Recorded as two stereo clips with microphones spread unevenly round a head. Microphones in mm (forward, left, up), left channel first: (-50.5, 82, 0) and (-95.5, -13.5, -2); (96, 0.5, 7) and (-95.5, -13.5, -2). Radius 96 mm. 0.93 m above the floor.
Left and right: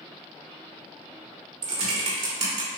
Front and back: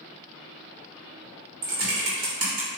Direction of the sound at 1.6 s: 130° right.